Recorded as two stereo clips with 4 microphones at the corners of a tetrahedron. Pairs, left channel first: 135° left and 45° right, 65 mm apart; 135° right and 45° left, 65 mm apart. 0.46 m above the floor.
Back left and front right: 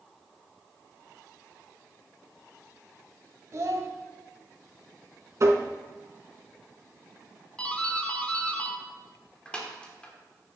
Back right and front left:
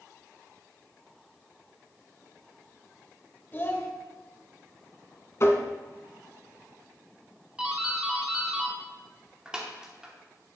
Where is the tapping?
85° right, 1.0 m.